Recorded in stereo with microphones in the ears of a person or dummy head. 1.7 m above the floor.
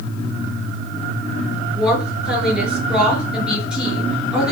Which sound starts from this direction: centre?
A woman speaking, at 1.8 s.